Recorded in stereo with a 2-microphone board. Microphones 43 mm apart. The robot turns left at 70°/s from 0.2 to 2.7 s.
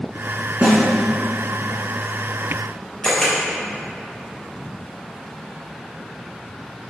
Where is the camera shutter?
20° left (ahead or behind), 3.5 m.